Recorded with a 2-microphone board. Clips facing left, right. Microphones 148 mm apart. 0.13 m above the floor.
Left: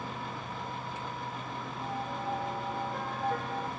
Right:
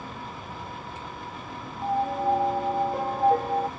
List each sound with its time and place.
1.8 s a piano: 40° right (ahead or behind)